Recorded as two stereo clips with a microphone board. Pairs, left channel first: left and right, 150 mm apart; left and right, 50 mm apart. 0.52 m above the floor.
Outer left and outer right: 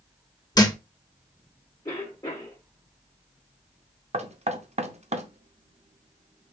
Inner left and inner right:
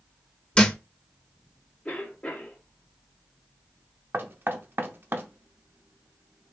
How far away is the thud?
About 0.8 m.